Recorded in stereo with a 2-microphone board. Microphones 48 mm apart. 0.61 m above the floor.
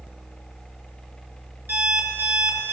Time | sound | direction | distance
1.7 | an alarm clock | 50° right (ahead or behind) | 3.5 m